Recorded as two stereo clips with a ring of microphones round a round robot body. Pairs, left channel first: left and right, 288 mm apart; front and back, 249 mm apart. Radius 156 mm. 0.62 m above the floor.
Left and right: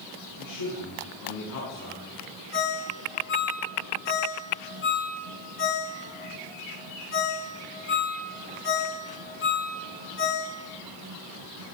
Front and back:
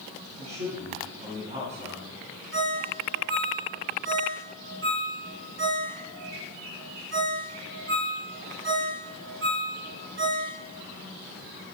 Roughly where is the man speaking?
Behind left.